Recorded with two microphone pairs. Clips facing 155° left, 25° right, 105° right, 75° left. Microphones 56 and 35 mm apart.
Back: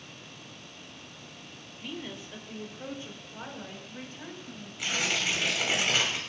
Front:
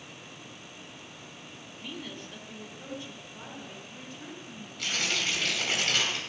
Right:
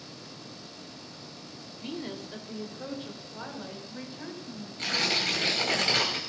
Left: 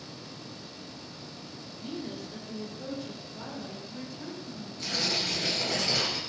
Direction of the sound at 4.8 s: 130° right.